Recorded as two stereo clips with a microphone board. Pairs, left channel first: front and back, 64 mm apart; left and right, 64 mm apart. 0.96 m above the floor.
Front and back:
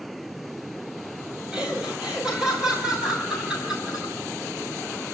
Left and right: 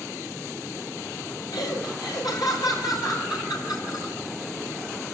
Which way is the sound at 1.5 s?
105° left.